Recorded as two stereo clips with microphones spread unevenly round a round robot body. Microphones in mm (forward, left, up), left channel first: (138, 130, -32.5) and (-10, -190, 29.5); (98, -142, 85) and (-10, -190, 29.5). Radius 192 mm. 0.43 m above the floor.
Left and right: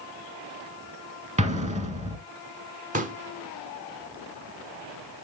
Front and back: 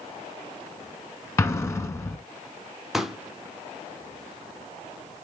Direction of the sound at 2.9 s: 175° left.